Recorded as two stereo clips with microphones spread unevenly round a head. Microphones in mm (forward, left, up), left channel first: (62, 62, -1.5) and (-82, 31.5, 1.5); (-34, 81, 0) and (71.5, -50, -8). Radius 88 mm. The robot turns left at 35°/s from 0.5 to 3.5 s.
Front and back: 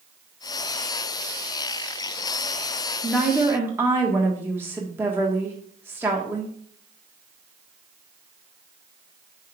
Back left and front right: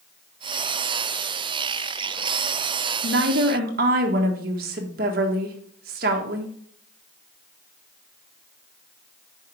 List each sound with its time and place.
3.0 s a woman speaking: 75° right, 1.5 m; by 6.5 s 90° right, 1.5 m